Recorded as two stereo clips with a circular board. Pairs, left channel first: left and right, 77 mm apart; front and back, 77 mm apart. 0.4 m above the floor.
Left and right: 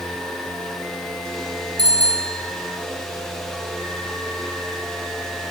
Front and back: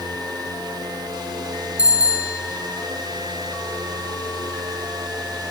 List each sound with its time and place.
1.8 s a bicycle bell: 105° right, 4.5 m